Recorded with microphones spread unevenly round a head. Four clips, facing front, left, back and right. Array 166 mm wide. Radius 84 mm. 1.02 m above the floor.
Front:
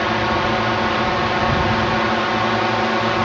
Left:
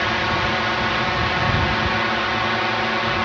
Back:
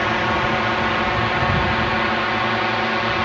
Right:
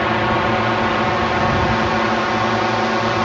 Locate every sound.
0.0 s a drone: 70° right; by 3.3 s 55° right